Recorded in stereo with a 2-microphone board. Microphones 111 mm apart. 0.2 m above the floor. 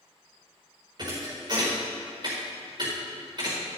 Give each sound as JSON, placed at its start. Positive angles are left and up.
{"t": 1.0, "sound": "a thud", "side_deg": -45, "distance_m": 5.0}